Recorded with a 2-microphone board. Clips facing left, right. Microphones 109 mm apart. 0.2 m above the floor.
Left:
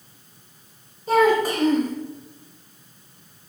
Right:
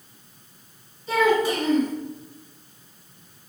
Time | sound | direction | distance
1.1 | a child speaking | 45° left (ahead or behind) | 1.2 m